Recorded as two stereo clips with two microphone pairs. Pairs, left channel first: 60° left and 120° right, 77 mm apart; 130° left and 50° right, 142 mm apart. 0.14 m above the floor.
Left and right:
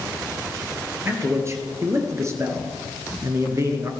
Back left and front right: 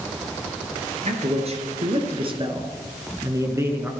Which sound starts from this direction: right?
A man speaking, at 1.1 s.